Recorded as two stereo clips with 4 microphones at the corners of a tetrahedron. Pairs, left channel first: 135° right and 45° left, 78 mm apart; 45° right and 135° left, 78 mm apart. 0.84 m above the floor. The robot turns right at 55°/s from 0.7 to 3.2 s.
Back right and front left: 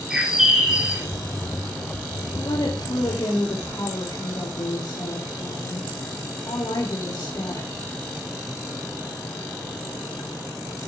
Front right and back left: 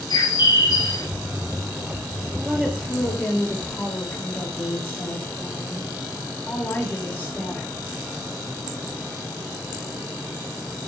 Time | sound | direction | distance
0.1 | a bird | 35° right | 2.5 m
2.3 | a woman speaking | 155° right | 3 m